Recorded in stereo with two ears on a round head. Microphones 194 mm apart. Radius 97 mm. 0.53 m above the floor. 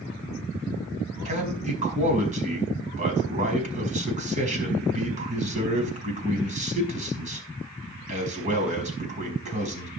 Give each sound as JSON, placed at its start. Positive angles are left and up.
{"t": 1.2, "sound": "a man speaking", "side_deg": -35, "distance_m": 5.0}